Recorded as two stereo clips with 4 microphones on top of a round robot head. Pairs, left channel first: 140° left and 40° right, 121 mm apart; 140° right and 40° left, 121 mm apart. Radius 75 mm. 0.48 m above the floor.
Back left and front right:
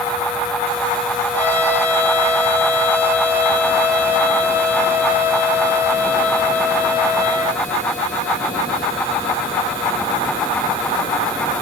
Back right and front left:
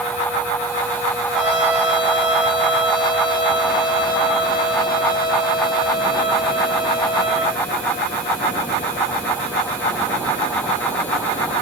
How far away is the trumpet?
About 9 m.